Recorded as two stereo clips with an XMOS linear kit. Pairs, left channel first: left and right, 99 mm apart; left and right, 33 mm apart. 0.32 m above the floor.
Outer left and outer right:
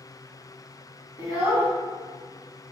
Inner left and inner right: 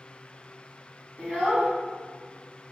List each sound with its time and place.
1.2 s a child speaking: 45° left (ahead or behind), 1.8 m